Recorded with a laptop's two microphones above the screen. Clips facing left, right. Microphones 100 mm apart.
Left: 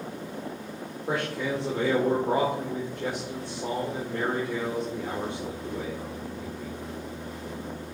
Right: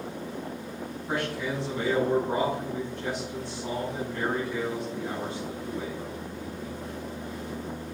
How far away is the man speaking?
About 2.5 m.